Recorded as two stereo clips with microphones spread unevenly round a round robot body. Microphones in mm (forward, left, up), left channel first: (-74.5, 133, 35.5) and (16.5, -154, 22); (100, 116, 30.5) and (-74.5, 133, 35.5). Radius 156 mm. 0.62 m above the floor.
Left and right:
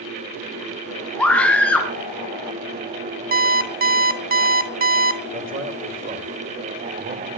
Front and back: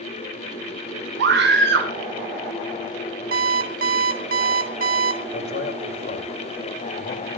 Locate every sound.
1.2 s a scream: 165° right, 2.5 m
3.3 s an alarm clock: 130° right, 1.2 m
5.3 s a man speaking: 15° right, 3 m